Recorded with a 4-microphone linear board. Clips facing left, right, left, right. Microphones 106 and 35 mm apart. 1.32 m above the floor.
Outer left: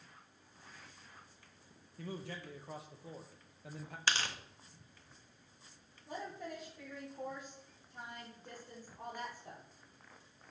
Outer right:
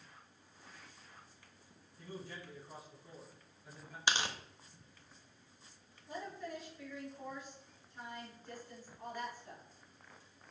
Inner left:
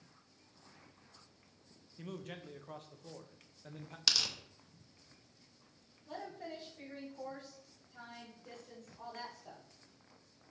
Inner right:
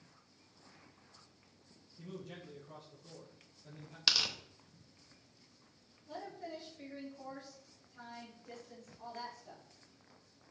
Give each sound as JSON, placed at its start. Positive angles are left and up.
{"t": 2.0, "sound": "a man speaking", "side_deg": 70, "distance_m": 1.4}
{"t": 4.1, "sound": "tearing paper", "side_deg": -15, "distance_m": 0.8}
{"t": 6.1, "sound": "a woman speaking", "side_deg": 80, "distance_m": 4.5}